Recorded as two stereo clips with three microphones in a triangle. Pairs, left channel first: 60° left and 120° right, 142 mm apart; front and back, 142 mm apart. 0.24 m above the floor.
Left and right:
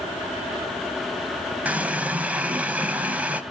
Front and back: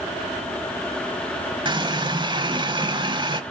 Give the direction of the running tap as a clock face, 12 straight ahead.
6 o'clock.